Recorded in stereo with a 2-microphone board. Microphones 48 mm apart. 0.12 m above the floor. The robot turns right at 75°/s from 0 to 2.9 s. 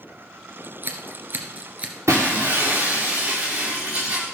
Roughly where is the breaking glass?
Right.